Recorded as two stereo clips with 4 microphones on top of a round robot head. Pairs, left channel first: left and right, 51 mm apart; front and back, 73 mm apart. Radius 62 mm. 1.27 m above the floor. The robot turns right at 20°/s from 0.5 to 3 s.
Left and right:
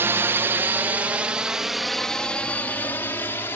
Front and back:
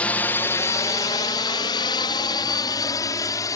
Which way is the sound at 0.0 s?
70° right.